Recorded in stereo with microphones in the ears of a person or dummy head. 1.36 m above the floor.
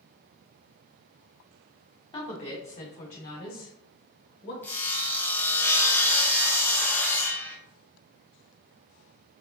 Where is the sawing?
15° left (ahead or behind), 0.9 m.